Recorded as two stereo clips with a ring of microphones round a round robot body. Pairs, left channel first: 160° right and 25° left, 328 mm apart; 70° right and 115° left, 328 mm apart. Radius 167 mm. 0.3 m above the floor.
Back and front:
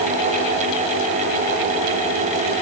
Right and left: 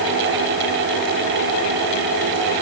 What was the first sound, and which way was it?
Only background noise.